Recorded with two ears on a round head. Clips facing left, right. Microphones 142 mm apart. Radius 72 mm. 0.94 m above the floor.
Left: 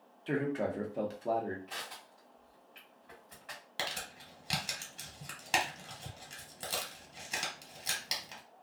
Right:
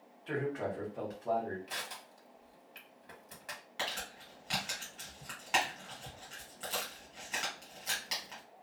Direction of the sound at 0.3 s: 35° left (ahead or behind).